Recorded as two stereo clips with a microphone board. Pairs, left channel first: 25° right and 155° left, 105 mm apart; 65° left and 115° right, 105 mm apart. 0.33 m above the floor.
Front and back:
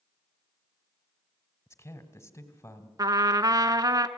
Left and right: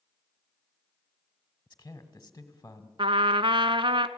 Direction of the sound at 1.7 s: 15° left.